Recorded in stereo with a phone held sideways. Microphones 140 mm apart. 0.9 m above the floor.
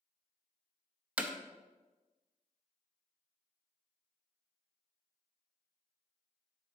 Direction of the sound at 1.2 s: 10° right (ahead or behind).